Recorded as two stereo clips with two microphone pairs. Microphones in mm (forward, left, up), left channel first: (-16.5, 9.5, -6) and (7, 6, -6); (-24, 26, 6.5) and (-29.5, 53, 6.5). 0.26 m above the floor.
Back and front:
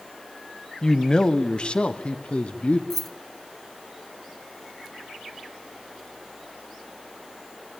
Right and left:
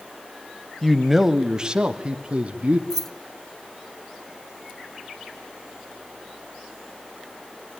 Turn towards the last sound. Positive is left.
turn(degrees=-145)